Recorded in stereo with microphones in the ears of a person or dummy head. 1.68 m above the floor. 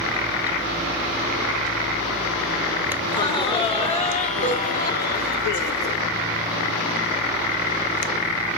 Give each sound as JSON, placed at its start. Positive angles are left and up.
{"t": 3.0, "sound": "laughter", "side_deg": 15, "distance_m": 2.5}